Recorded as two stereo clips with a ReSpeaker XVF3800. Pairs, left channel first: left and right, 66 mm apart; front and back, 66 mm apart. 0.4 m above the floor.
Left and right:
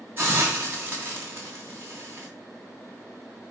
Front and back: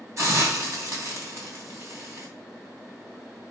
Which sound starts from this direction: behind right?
A hiss, at 0.2 s.